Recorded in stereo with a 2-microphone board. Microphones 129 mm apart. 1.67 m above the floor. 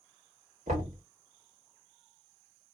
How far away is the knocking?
About 1.7 m.